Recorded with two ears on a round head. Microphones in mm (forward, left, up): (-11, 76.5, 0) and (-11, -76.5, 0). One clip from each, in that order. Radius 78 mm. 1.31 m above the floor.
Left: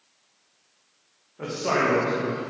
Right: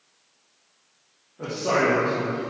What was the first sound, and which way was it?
A man speaking, 65° left (ahead or behind).